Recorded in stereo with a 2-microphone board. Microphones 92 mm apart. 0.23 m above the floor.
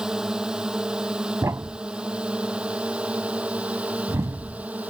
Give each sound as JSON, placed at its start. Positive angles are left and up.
{"t": 0.0, "sound": "a drone", "side_deg": -5}
{"t": 1.4, "sound": "a thud", "side_deg": -35}